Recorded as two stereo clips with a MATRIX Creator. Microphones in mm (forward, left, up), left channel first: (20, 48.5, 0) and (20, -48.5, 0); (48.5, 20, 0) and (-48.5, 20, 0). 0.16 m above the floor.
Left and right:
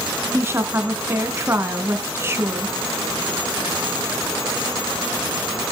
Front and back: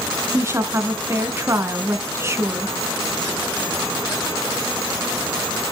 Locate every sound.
0.3 s a woman speaking: 135° right, 1.3 m